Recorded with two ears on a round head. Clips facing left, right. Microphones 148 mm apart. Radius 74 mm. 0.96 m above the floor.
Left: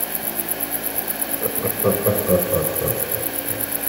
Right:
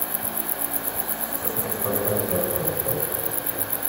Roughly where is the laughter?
Left.